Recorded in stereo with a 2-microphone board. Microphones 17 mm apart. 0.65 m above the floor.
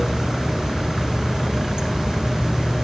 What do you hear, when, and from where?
0.0 s running water: 55° right (ahead or behind), 9.5 m